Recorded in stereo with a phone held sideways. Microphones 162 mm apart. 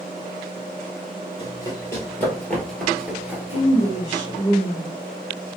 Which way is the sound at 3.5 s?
50° left (ahead or behind).